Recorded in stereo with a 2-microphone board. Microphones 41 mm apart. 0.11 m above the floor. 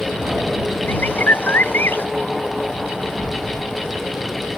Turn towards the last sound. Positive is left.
turn(degrees=55)  # may be behind; listen again after turning